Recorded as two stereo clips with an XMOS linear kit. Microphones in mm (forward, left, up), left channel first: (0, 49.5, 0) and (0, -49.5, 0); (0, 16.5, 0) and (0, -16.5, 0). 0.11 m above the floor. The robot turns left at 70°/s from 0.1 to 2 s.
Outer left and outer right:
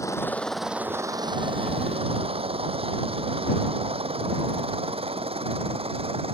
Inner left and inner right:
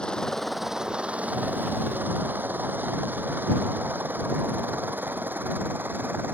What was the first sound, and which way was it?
A helicopter, 30° left (ahead or behind).